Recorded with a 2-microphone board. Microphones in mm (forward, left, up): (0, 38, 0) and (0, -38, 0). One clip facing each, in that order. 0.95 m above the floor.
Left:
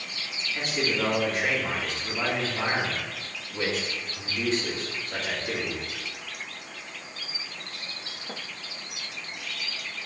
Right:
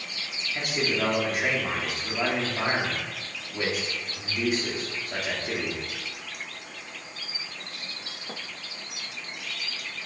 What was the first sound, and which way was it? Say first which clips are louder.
A man speaking: even; 15° right (ahead or behind).